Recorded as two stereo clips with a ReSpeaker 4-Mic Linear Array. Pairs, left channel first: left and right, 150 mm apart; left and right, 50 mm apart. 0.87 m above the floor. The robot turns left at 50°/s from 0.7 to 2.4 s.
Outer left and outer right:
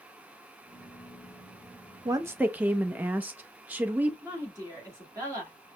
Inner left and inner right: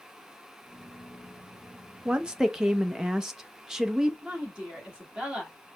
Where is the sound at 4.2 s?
20° right (ahead or behind), 1.8 m.